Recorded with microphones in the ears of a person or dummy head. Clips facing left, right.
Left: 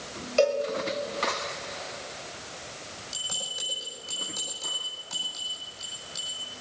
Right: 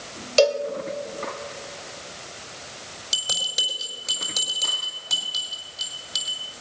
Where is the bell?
80° right, 5 m.